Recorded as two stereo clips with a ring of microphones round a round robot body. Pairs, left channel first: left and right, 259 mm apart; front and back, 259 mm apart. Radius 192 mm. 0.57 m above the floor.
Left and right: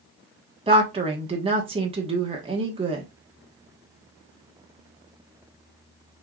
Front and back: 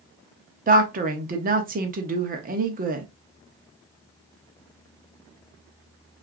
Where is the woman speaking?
145° right, 0.9 m.